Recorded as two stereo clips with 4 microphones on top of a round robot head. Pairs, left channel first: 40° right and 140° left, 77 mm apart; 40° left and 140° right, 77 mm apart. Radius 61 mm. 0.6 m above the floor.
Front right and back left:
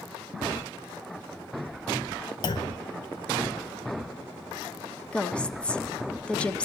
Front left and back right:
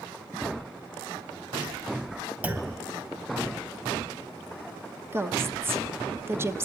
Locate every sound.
2.4 s a clunk: 70° right, 0.7 m
5.1 s a woman speaking: 105° right, 1.0 m